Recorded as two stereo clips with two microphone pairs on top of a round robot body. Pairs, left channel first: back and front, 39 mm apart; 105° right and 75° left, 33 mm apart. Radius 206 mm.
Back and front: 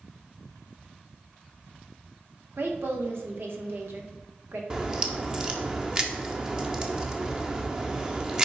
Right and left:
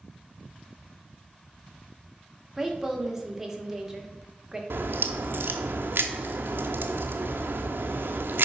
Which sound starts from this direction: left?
A crack, at 4.7 s.